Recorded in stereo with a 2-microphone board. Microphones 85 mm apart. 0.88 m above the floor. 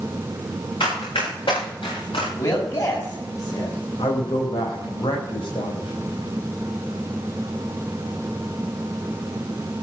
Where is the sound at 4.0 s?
75° left (ahead or behind), 4.5 m.